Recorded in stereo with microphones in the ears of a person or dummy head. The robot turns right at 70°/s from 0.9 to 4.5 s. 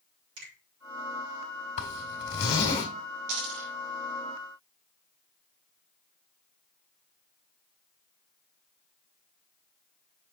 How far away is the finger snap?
About 4 m.